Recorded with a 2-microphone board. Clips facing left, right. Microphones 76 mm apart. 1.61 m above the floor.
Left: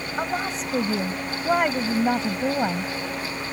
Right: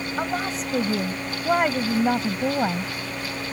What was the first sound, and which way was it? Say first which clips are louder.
A woman speaking: left 1 dB; centre (ahead or behind).